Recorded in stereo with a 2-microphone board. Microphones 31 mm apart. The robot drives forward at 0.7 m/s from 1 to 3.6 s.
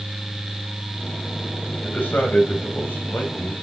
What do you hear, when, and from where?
1.7 s a man speaking: 75° left (ahead or behind), 3 m